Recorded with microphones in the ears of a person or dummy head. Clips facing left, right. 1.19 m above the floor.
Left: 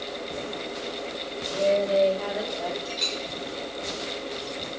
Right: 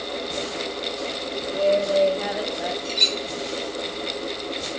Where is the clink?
35° right (ahead or behind), 3 m.